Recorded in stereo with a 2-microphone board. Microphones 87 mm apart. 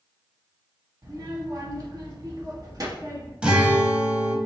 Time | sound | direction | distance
1.0 | a child speaking | 45° right (ahead or behind) | 1.0 m
3.4 | a guitar | 10° right (ahead or behind) | 0.7 m